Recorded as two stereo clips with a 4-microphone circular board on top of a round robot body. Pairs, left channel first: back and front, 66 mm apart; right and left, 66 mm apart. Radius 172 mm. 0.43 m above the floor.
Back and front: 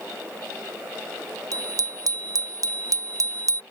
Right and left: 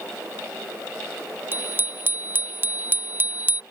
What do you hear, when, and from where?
1.5 s a bicycle bell: 30° left